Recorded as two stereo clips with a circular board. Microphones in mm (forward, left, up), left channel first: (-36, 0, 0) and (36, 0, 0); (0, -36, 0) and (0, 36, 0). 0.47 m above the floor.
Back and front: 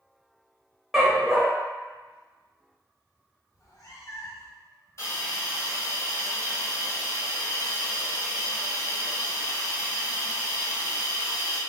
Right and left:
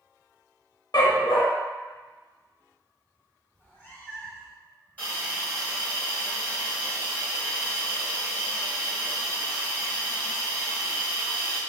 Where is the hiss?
155° right, 1.7 m.